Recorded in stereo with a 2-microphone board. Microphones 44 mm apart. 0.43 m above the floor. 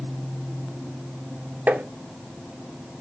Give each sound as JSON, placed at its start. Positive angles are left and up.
{"t": 1.7, "sound": "tapping", "side_deg": -40, "distance_m": 1.0}